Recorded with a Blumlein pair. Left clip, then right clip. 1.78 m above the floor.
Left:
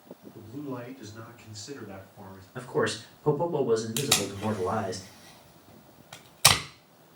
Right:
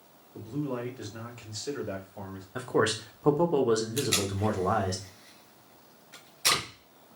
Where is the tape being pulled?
50° left, 1.7 m.